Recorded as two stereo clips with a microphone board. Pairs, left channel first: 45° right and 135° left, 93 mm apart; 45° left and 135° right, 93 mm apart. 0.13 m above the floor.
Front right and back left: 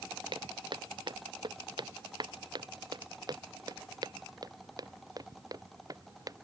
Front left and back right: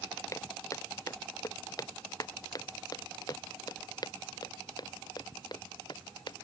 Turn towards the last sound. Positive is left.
turn(degrees=85)